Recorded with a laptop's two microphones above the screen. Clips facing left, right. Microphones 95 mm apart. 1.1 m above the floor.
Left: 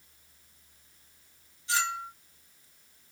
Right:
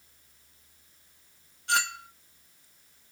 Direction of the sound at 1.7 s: 65° right (ahead or behind).